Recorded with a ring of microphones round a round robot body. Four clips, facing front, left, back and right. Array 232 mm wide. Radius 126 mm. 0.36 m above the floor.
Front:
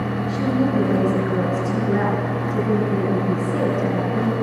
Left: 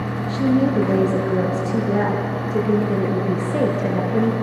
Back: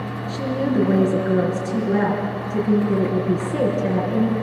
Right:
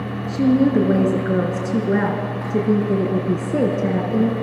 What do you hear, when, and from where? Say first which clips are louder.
0.3 s a woman speaking: right 2 dB, front 1 dB; 95° right, 5.5 m